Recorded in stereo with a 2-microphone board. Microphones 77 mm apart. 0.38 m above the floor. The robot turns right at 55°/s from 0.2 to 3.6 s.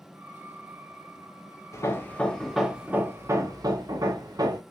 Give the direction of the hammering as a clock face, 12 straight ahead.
8 o'clock.